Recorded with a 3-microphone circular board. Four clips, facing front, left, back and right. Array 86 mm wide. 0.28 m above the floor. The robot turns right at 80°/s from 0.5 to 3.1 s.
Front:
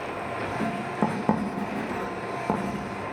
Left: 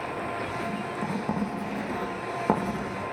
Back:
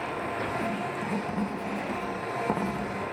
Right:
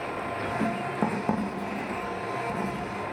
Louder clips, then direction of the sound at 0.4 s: Right 3 dB, front 1 dB; 80° right.